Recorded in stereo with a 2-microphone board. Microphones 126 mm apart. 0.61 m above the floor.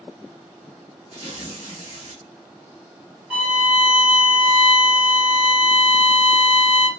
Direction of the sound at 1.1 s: 55° right (ahead or behind).